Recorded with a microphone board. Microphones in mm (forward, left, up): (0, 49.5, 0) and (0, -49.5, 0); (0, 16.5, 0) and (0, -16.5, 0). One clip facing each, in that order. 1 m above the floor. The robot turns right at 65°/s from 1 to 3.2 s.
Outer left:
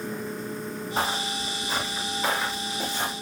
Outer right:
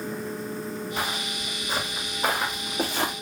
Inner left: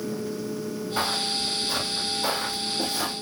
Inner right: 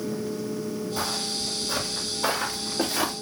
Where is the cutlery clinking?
I don't hear cutlery clinking.